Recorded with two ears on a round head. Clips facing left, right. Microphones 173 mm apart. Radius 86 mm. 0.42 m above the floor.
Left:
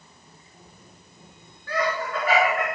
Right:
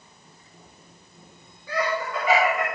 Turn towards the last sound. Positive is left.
turn(degrees=0)  # may be behind; listen again after turning